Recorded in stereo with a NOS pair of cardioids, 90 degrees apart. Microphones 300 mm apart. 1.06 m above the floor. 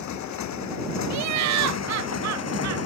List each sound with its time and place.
0.0 s a motorcycle: 70° left; by 2.9 s 55° left
1.1 s laughter: 65° right